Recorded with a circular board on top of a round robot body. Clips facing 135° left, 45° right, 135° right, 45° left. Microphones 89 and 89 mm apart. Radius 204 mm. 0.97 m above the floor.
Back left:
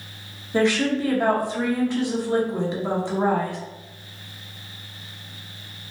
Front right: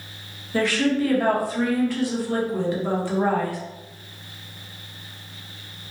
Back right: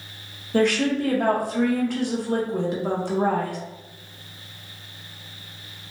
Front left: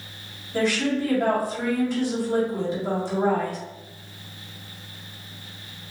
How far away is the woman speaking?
About 1.0 m.